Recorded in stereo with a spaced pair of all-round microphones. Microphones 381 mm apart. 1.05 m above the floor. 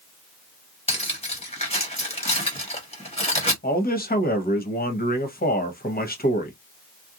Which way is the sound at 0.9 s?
15° left (ahead or behind).